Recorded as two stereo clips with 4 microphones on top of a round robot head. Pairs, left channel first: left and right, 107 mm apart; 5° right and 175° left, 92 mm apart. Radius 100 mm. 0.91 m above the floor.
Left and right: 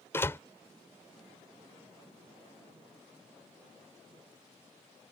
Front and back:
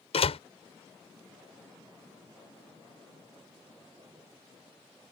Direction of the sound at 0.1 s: 15° left.